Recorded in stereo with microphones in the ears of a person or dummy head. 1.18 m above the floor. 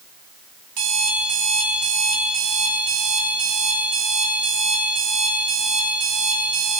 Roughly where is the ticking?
I don't hear ticking.